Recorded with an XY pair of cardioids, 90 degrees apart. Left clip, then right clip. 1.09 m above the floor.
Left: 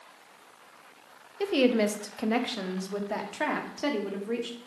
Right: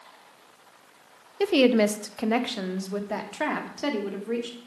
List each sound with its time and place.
1.4 s a woman speaking: 45° right, 0.8 m; by 4.6 s 5° right, 3 m